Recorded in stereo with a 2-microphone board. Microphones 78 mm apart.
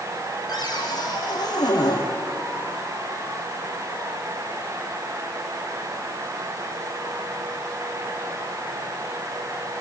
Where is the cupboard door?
60° left (ahead or behind), 5 m.